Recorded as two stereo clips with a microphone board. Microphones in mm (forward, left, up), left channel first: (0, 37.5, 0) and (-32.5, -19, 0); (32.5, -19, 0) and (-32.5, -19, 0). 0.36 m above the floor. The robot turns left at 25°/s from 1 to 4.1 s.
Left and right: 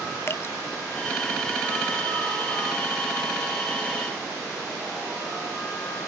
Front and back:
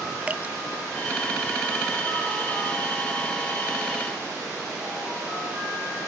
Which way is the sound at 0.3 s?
115° left.